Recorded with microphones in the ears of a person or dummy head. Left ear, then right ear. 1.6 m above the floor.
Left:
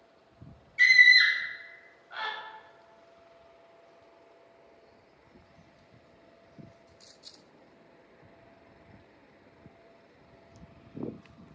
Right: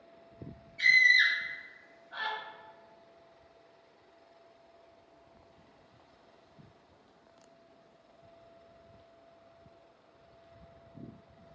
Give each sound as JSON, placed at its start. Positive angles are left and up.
{"t": 0.8, "sound": "a scream", "side_deg": 65, "distance_m": 1.5}